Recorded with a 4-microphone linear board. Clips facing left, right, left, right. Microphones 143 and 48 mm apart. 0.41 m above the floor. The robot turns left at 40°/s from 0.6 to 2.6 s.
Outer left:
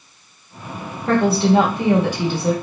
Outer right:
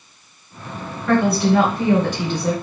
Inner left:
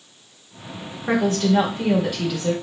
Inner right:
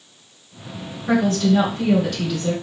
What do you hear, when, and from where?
1.1 s a woman speaking: 55° left, 1.1 m; by 2.5 s straight ahead, 1.1 m